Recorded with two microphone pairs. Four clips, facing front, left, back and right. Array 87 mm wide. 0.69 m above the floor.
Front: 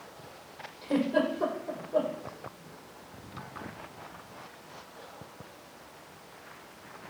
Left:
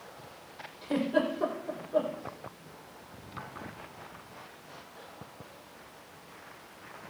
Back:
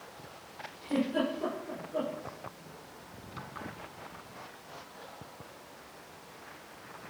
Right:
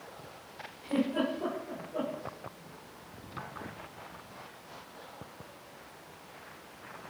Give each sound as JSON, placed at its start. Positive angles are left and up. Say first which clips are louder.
{"t": 0.8, "sound": "a giggle", "louder": "left 2 dB, front 3 dB", "azimuth_deg": 30, "distance_m": 8.0}